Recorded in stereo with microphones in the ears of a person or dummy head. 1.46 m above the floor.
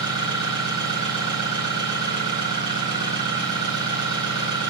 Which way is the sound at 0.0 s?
25° right (ahead or behind).